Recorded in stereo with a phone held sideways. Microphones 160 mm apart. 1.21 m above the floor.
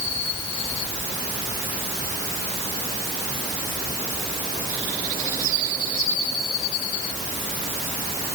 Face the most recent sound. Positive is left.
No sound to turn to.